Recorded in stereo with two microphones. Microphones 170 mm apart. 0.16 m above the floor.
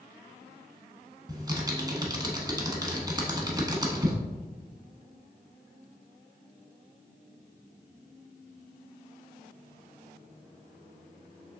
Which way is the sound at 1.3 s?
25° right (ahead or behind).